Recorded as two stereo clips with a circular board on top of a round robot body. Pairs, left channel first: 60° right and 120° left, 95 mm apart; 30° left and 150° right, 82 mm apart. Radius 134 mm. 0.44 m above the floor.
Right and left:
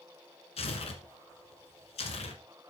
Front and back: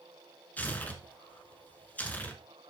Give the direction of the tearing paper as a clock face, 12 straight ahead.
1 o'clock.